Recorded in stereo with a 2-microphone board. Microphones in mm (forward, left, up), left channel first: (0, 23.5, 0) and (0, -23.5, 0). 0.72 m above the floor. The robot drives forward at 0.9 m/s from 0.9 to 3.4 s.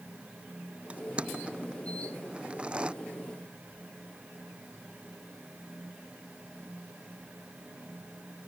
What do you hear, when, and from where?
0.9 s crushing: 25° right (ahead or behind); by 2.9 s 20° right (ahead or behind)